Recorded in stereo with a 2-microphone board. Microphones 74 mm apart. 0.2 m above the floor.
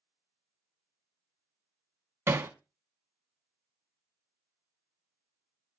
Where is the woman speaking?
I don't hear a woman speaking.